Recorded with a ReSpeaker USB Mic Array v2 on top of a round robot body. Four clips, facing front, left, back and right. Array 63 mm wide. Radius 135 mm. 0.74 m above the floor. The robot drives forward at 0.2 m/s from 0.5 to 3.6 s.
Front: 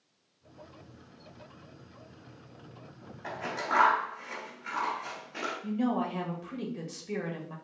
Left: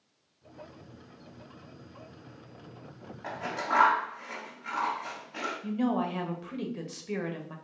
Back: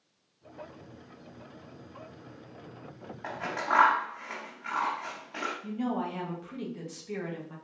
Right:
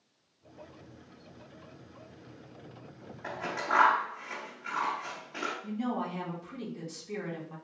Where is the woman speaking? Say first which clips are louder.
Left 8 dB, front 4 dB; 90° left, 1.3 m.